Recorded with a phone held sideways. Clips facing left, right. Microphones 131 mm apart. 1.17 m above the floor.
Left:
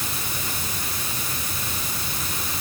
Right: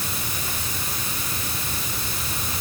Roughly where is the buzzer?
No buzzer in this recording.